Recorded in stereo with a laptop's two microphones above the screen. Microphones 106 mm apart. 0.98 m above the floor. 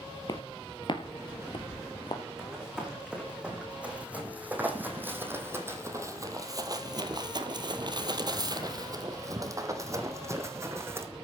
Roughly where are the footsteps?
Left.